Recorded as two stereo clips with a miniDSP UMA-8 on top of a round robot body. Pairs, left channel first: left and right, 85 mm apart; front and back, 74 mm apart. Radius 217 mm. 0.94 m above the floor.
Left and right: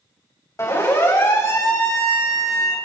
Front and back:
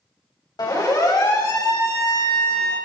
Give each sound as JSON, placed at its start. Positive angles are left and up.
{"t": 0.6, "sound": "a siren", "azimuth_deg": 30, "distance_m": 6.0}